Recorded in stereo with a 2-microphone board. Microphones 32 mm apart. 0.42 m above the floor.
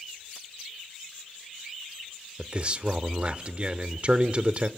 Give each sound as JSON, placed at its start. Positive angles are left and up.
{"t": 2.4, "sound": "a man speaking", "side_deg": -35, "distance_m": 0.8}